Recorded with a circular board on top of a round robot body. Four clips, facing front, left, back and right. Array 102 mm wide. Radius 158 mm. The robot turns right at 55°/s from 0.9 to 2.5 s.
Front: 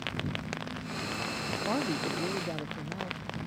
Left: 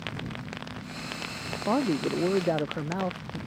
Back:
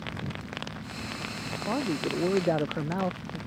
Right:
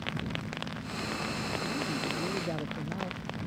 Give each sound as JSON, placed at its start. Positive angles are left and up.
{"t": 1.7, "sound": "a man speaking", "azimuth_deg": 90}